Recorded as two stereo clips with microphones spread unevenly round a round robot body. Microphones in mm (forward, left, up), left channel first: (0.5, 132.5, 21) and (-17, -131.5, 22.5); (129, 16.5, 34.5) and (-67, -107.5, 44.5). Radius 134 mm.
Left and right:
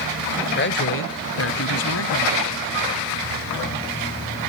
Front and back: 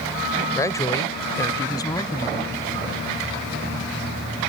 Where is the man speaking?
100° left; by 2.5 s 105° left.